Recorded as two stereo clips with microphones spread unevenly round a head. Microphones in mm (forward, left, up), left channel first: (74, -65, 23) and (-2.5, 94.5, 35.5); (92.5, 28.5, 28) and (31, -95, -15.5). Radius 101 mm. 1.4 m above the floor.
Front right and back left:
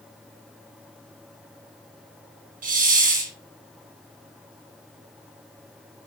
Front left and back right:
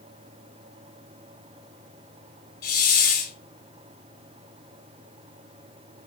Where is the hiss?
75° left, 7.5 m.